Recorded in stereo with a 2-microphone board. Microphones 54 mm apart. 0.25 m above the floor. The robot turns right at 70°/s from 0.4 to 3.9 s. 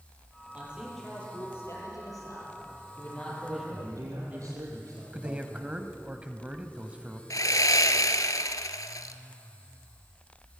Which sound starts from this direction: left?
Sawing, at 7.3 s.